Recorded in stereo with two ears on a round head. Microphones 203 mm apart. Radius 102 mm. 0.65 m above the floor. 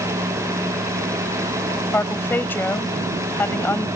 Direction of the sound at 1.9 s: 10° left (ahead or behind).